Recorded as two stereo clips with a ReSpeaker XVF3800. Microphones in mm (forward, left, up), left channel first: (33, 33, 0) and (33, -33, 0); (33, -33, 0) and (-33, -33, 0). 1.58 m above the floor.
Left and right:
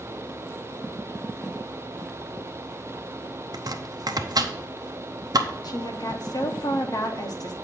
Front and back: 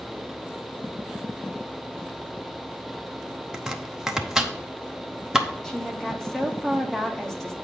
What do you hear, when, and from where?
3.5 s chopping: 100° right, 0.8 m
5.6 s a woman speaking: 80° left, 1.3 m